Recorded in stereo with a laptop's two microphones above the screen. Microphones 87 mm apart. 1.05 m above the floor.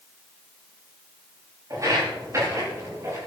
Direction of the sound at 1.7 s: 40° right (ahead or behind).